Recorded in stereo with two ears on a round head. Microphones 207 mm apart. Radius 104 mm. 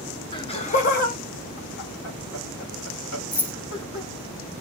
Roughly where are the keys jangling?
Centre.